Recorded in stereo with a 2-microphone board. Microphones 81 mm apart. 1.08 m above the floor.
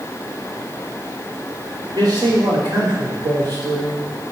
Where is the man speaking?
65° right (ahead or behind), 3.5 m.